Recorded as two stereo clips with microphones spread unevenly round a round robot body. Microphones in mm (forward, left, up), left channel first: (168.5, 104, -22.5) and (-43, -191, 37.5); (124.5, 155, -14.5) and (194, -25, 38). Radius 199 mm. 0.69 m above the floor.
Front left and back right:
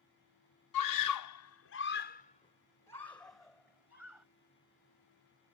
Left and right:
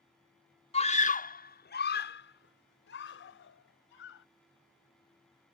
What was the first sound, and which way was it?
A scream, 65° left.